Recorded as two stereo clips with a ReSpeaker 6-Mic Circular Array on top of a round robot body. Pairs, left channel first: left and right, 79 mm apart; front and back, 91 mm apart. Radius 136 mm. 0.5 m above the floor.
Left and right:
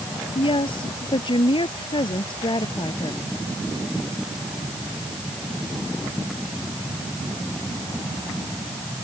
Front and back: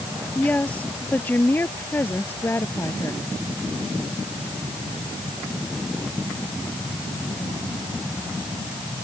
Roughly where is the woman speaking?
Left.